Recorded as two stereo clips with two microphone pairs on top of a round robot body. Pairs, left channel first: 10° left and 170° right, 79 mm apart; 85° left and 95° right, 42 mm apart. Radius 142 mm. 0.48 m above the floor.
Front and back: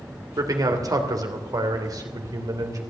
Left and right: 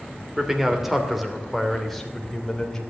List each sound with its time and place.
0.4 s a man speaking: 165° right, 2.5 m; by 2.8 s 165° left, 3 m